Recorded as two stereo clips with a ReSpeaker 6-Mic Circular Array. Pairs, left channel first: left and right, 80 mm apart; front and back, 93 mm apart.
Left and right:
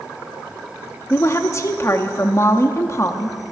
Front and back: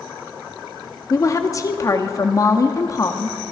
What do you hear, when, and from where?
1.1 s a woman speaking: 45° left, 0.7 m